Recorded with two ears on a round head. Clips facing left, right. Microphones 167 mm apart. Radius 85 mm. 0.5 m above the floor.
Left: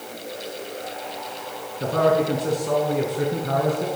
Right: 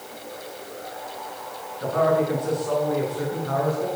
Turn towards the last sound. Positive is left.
turn(degrees=30)  # may be behind; listen again after turning